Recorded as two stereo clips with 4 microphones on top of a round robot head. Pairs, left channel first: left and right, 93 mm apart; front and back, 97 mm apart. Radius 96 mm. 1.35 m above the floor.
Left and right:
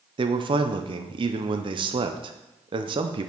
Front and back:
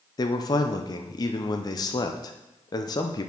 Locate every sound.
0.2 s a man speaking: 55° right, 0.5 m